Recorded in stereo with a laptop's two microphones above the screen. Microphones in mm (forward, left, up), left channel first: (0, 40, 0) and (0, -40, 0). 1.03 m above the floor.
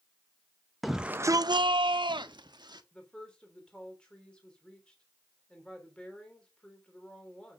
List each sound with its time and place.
0.8 s a shout: centre (ahead or behind), 0.7 m; by 2.8 s 60° right (ahead or behind), 1.7 m
2.9 s a woman speaking: 10° left (ahead or behind), 3.5 m